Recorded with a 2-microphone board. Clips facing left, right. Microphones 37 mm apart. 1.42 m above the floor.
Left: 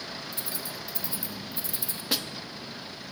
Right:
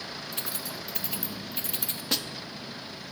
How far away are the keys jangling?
About 1.1 m.